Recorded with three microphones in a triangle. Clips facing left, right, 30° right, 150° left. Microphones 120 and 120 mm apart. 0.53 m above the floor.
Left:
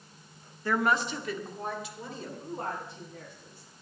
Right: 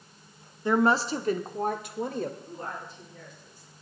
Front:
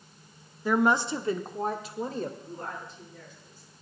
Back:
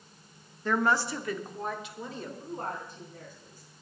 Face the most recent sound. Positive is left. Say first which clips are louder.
# left 2 dB, back 2 dB
turn(degrees=115)